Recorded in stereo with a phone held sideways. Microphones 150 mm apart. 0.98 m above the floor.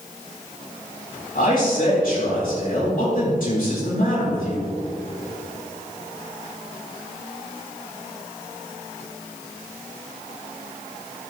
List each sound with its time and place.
1.4 s a man speaking: 65° left (ahead or behind), 4 m